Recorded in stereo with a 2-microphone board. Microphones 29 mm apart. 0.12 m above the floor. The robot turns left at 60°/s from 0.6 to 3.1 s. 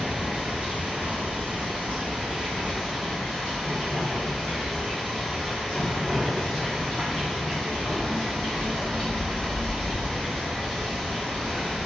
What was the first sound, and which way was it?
Running water, 45° right.